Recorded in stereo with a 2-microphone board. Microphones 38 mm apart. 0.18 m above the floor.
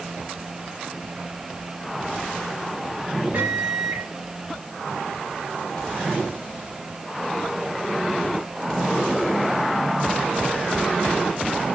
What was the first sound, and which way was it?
A microwave, 60° right (ahead or behind).